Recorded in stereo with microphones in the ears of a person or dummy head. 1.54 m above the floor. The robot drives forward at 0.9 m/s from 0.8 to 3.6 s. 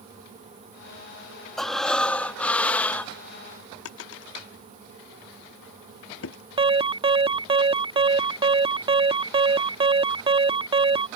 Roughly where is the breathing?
Centre.